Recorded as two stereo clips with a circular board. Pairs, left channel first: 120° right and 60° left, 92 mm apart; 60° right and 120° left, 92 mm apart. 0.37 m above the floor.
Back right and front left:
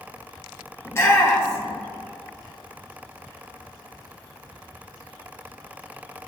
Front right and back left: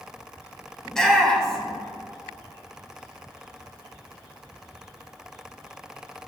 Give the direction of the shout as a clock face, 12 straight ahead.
4 o'clock.